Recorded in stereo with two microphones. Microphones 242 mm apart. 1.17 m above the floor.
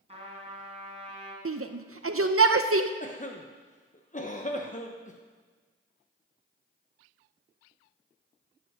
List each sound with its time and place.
0.1 s a trumpet: 25° right (ahead or behind), 3 m
1.4 s a shout: 60° right (ahead or behind), 0.6 m
3.0 s a cough: 30° left (ahead or behind), 0.9 m